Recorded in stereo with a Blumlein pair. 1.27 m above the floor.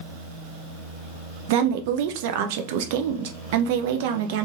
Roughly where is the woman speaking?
Ahead right.